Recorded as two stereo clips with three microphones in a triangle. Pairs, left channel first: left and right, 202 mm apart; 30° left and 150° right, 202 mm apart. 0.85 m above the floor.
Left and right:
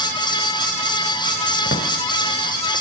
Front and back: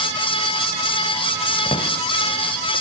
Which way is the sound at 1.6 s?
80° left.